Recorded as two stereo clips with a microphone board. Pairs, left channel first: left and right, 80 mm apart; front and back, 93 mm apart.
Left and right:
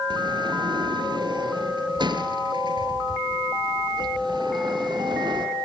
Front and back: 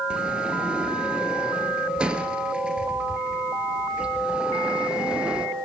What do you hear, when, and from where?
0.1 s a sliding door: 100° right, 3 m